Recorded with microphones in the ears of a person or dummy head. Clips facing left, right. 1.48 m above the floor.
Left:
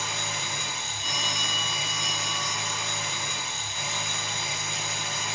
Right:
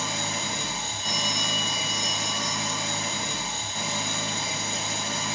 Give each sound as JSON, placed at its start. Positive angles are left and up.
{"t": 0.0, "sound": "an engine running", "side_deg": -25, "distance_m": 1.4}
{"t": 1.0, "sound": "a phone ringing", "side_deg": 80, "distance_m": 2.5}